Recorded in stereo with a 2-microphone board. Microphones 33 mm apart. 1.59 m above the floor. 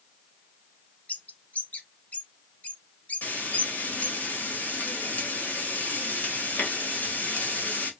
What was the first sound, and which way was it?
A bird, 45° left (ahead or behind).